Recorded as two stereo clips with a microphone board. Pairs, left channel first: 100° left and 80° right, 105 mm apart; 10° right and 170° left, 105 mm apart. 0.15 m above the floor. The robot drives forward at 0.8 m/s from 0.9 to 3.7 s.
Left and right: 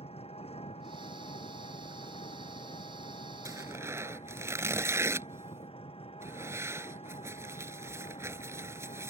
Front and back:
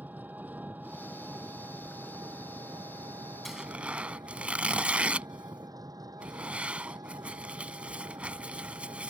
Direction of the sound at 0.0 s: 95° left.